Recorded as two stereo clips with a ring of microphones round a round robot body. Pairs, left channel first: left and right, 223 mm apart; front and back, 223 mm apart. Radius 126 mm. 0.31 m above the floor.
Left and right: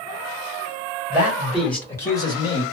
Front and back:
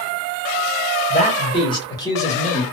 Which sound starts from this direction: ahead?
A man speaking, at 1.1 s.